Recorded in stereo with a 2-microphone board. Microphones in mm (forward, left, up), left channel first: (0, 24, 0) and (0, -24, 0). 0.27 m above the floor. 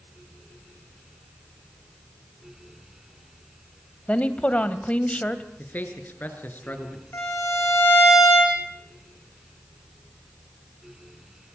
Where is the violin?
70° left (ahead or behind), 7 m.